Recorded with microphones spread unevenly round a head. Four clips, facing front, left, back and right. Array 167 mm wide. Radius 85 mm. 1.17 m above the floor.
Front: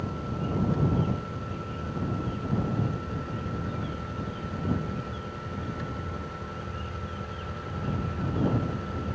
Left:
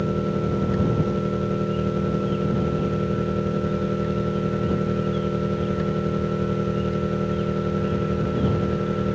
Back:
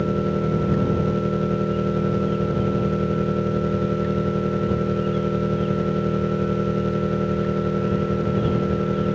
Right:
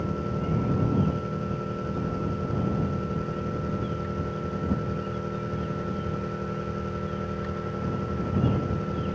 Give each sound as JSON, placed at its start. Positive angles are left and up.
{"t": 0.0, "sound": "an engine running", "azimuth_deg": 155}